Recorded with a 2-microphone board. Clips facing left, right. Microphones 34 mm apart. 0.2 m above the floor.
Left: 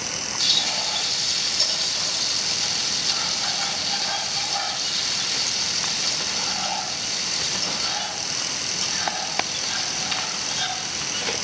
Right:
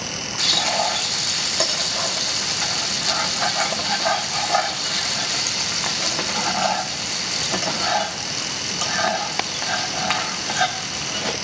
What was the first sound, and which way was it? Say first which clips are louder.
Frying: right 3 dB; 65° right (ahead or behind).